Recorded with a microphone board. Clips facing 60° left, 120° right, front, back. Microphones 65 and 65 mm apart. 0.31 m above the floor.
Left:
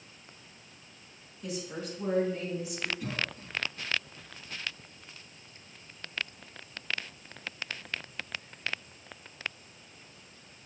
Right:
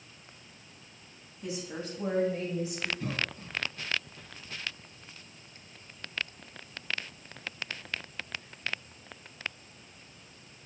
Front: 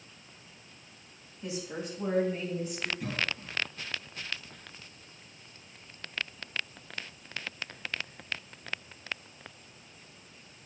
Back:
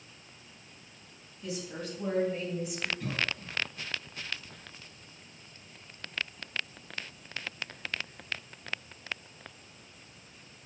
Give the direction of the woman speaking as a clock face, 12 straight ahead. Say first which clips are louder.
Even, front 1 dB; 2 o'clock.